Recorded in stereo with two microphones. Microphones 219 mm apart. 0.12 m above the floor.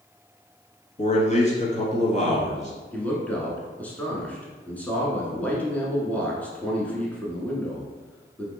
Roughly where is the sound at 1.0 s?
Left.